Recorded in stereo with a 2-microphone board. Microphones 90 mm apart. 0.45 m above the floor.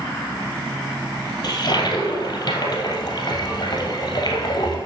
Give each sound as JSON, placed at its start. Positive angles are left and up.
{"t": 1.4, "sound": "a toilet flushing", "side_deg": 45, "distance_m": 2.5}